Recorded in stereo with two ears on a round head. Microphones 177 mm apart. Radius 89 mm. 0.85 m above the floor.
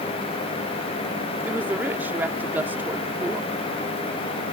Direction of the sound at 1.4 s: 10° right (ahead or behind).